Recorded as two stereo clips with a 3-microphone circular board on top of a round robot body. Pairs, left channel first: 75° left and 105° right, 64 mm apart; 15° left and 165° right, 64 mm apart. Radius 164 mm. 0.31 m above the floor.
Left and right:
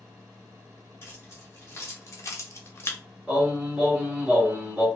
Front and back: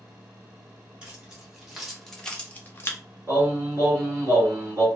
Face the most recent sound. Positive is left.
turn(degrees=-175)